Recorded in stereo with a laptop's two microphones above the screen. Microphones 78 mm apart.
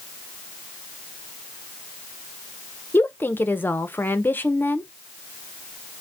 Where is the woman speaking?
30° left (ahead or behind), 0.6 m.